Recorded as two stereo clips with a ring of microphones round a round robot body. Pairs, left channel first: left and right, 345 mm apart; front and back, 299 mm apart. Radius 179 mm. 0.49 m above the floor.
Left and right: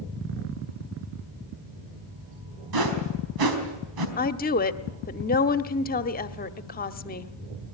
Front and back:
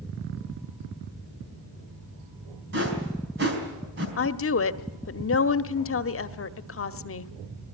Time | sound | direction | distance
2.7 | a whoosh | 120° right | 4 m
4.2 | a woman speaking | 30° left | 1.2 m